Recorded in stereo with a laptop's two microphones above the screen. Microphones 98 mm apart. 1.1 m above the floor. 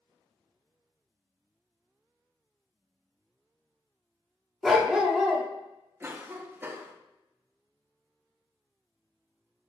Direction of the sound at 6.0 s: 25° right (ahead or behind).